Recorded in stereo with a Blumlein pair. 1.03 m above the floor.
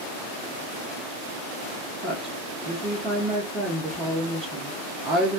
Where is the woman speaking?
10° right, 1.0 m.